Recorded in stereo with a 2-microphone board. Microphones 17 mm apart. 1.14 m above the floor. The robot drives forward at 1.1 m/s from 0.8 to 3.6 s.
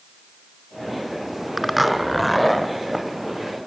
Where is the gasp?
I don't hear a gasp.